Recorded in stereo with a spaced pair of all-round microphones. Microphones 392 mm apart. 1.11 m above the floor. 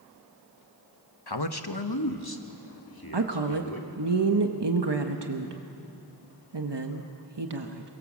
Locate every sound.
1.3 s a man speaking: 70° left (ahead or behind), 1.1 m; by 4.0 s 55° left (ahead or behind), 3 m
3.1 s a woman speaking: 80° right, 1.2 m